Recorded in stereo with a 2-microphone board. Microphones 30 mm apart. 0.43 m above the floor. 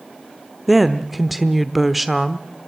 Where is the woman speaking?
Centre (ahead or behind), 0.9 m.